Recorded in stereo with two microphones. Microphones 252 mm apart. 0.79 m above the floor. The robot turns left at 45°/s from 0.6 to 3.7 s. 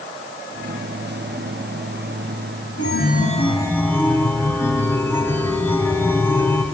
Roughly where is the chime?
Ahead left.